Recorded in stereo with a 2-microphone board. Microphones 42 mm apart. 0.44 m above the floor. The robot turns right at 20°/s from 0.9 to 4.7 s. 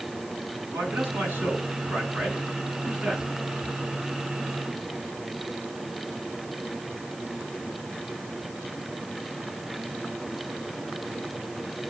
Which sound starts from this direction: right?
A man speaking, at 0.7 s.